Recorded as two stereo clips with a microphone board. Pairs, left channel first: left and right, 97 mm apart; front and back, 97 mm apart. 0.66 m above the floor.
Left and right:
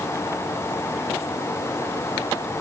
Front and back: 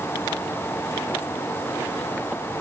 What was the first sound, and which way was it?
Only background noise.